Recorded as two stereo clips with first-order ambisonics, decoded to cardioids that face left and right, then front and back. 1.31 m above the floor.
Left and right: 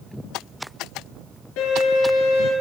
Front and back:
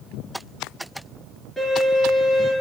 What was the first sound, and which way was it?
A violin, 90° left.